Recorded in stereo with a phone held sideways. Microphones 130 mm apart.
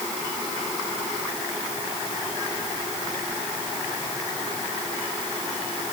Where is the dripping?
No dripping in this recording.